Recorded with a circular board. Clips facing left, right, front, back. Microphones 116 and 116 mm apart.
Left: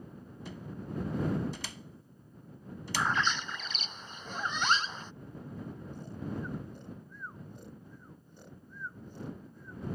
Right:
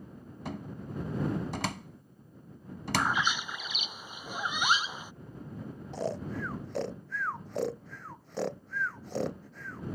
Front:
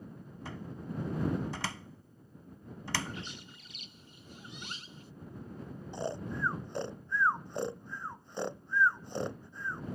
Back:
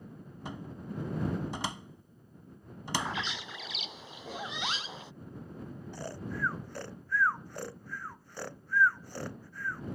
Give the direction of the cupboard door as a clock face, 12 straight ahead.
4 o'clock.